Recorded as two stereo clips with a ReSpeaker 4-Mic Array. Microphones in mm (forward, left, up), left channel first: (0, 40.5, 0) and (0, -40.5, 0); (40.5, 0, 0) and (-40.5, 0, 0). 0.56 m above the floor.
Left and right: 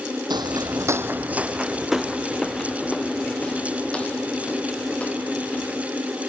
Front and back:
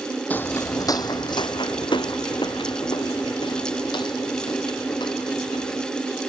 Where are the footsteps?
70° right; by 5.9 s 20° left.